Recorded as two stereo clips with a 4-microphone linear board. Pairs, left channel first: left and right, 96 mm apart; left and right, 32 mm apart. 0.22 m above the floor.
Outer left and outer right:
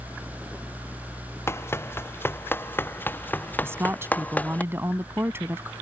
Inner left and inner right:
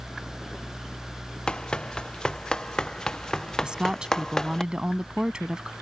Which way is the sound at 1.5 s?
30° left (ahead or behind).